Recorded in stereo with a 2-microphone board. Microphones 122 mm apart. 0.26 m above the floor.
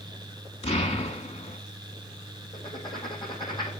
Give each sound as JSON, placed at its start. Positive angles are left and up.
{"t": 0.6, "sound": "an explosion", "side_deg": 55, "distance_m": 0.8}
{"t": 2.5, "sound": "writing", "side_deg": 35, "distance_m": 1.6}